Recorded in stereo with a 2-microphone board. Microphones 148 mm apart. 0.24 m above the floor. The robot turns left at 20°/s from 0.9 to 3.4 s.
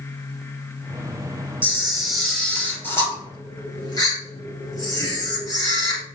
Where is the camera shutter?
170° right, 3.5 m; by 6.0 s 155° left, 3.5 m.